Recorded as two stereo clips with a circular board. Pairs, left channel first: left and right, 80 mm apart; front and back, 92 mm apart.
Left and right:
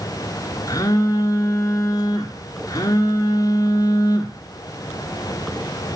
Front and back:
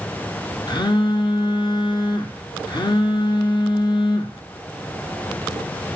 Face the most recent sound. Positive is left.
turn(degrees=40)